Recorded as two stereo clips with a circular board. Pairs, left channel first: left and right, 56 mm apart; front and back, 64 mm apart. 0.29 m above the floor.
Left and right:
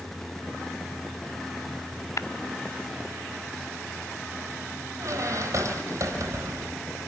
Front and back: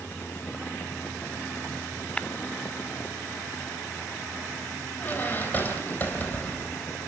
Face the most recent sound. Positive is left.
turn(degrees=-65)